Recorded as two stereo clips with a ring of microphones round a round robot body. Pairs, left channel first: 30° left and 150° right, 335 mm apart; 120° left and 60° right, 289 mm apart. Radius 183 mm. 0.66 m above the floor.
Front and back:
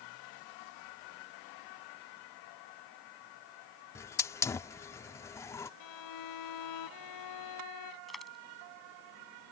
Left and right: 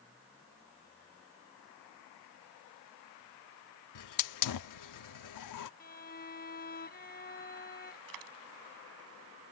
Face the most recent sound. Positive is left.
turn(degrees=-60)